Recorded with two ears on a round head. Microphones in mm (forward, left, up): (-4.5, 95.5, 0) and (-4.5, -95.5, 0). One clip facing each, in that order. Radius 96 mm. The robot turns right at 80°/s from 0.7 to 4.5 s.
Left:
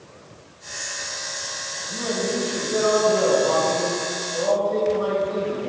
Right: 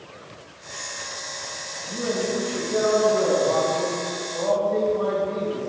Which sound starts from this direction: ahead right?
A man speaking, at 1.9 s.